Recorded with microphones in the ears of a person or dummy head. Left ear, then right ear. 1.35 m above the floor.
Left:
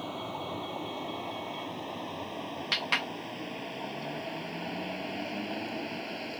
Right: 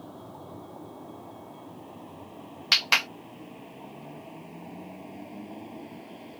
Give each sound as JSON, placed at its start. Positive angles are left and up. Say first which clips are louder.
{"t": 0.0, "sound": "a vehicle", "louder": "left 8 dB", "side_deg": 75}
{"t": 2.7, "sound": "a clap", "louder": "right 7 dB", "side_deg": -45}